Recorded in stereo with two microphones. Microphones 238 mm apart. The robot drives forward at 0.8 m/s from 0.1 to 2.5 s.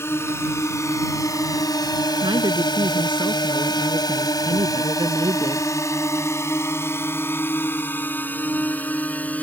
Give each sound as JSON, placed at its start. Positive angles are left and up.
{"t": 0.0, "sound": "a drone", "side_deg": 10}
{"t": 2.2, "sound": "a woman speaking", "side_deg": -20}